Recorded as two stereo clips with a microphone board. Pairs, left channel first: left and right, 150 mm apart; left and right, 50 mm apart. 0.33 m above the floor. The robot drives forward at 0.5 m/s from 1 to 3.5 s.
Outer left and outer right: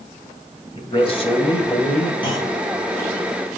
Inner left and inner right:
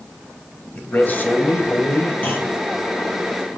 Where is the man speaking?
40° left (ahead or behind), 1.9 m; by 2.1 s 45° left (ahead or behind), 1.7 m.